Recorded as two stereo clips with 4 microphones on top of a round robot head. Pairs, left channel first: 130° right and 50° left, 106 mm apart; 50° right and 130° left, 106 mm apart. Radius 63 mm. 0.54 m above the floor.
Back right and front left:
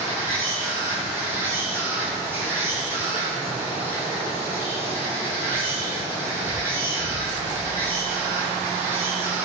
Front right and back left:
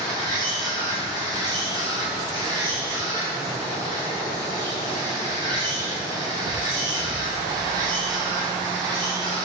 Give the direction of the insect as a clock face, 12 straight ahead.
8 o'clock.